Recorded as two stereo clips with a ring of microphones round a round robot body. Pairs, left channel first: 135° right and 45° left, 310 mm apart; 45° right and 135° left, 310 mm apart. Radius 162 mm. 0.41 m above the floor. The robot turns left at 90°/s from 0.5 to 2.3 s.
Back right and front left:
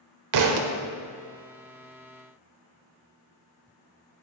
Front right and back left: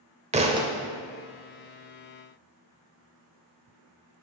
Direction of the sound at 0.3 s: 65° left.